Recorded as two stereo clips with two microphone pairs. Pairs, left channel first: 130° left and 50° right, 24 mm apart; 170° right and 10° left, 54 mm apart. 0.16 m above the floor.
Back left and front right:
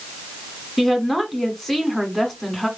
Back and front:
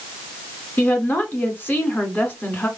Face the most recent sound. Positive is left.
turn(degrees=-145)